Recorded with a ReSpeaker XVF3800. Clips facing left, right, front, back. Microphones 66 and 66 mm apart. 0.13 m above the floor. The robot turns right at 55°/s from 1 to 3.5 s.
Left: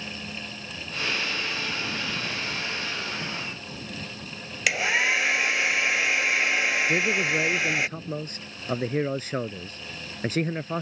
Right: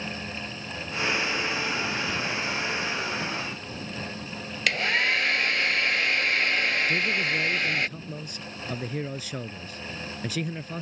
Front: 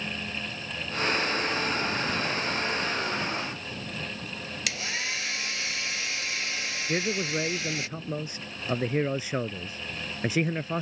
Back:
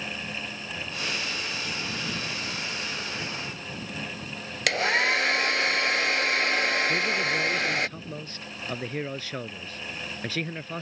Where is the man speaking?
65° left.